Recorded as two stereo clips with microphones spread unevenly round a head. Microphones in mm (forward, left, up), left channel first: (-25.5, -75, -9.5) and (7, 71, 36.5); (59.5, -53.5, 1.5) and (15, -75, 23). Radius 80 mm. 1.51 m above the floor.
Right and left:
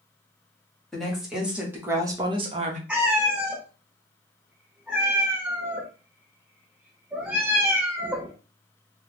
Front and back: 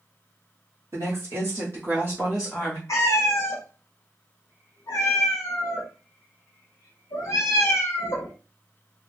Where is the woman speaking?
165° left, 1.3 m; by 2.8 s 110° left, 0.7 m.